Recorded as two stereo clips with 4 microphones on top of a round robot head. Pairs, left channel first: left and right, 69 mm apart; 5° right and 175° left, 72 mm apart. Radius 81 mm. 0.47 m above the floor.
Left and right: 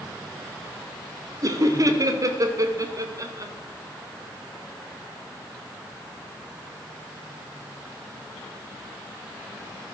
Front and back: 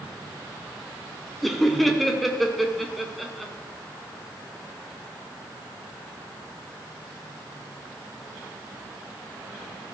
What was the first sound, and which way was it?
Laughter, 95° right.